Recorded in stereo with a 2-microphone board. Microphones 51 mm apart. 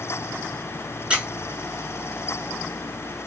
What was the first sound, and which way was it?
A squeak, 20° right (ahead or behind).